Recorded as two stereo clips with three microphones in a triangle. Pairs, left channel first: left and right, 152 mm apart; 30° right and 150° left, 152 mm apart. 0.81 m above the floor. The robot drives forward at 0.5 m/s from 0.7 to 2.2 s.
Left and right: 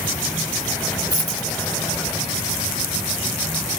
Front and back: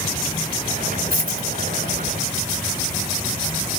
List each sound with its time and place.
1.1 s a dropped coin: 155° left, 1.9 m